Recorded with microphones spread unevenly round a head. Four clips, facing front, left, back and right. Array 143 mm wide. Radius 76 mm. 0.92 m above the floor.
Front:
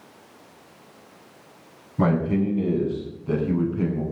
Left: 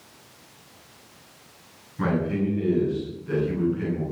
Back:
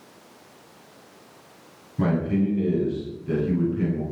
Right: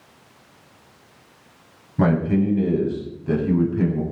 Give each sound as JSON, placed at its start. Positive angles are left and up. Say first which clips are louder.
{"t": 2.0, "sound": "a man speaking", "louder": "right 5 dB, front 1 dB", "azimuth_deg": -50, "distance_m": 6.0}